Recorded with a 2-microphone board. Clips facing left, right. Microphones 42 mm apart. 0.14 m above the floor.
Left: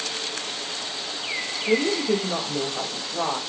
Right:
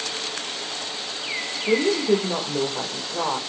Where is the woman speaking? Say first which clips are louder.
Right 2 dB; 75° right (ahead or behind), 4 m.